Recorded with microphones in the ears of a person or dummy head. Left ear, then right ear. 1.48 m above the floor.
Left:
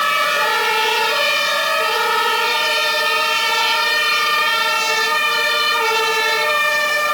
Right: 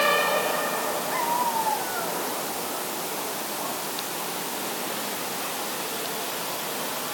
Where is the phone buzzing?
I don't hear a phone buzzing.